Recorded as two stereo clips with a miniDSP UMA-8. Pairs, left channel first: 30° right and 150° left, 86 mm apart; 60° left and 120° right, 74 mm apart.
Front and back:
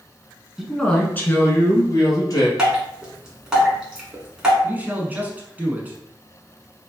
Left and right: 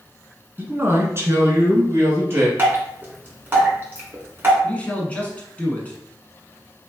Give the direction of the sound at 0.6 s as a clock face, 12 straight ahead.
4 o'clock.